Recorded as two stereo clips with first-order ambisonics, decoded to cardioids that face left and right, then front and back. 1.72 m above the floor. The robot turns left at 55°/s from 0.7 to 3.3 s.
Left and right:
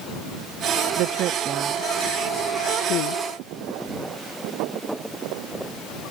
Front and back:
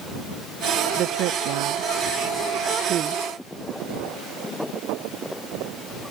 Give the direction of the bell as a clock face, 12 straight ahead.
No bell in this recording.